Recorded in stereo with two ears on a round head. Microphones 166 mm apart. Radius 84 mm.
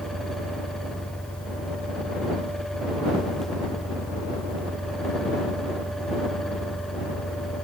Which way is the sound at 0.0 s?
10° left (ahead or behind).